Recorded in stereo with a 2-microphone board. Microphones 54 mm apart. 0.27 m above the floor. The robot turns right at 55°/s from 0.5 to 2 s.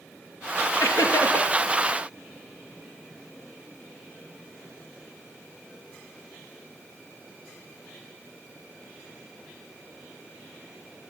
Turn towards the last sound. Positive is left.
turn(degrees=155)